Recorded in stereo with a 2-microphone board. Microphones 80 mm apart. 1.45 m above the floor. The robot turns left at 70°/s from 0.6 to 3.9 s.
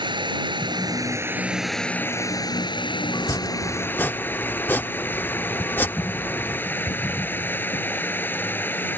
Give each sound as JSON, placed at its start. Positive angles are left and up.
{"t": 0.0, "sound": "running water", "azimuth_deg": -105}
{"t": 3.1, "sound": "chopping", "azimuth_deg": 95}